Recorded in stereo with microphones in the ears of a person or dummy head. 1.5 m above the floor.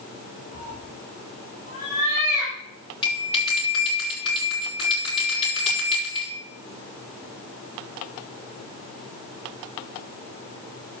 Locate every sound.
0.5 s a cat meowing: 45° left (ahead or behind), 4.5 m; by 2.6 s 55° left (ahead or behind), 5 m
3.0 s a bell: 35° left (ahead or behind), 6.5 m